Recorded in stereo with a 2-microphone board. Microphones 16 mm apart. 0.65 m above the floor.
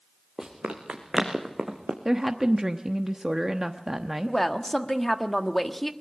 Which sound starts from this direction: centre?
A woman speaking, at 4.3 s.